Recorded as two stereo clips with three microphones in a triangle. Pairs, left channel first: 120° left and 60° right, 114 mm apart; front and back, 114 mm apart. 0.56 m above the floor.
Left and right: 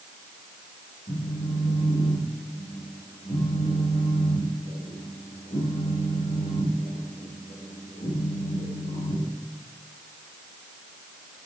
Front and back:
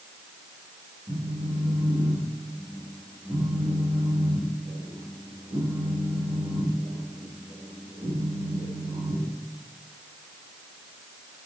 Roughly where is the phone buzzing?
Behind left.